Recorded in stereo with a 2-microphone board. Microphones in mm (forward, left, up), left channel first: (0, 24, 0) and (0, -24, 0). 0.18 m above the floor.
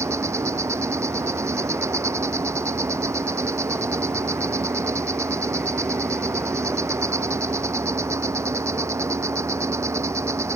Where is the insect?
80° right.